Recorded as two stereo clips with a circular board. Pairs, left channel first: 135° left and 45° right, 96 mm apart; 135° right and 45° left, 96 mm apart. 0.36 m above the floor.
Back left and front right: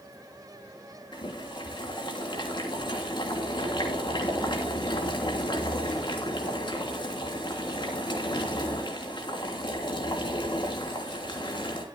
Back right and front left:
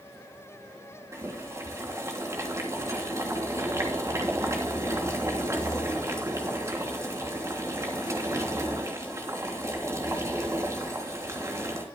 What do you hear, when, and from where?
1.1 s boiling: 105° left, 3 m